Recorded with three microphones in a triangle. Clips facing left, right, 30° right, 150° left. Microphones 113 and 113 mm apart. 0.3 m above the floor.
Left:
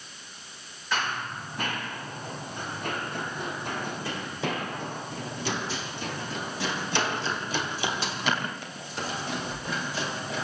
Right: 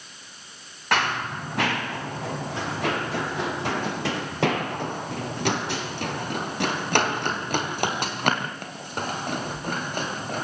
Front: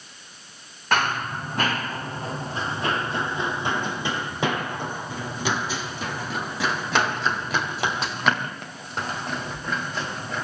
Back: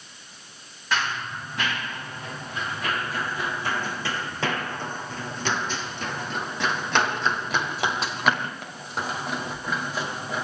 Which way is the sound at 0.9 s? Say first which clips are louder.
Right 6 dB, front 4 dB; 70° right.